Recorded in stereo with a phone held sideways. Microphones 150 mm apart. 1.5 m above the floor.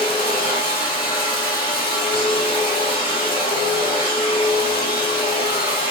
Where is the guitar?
No guitar in this recording.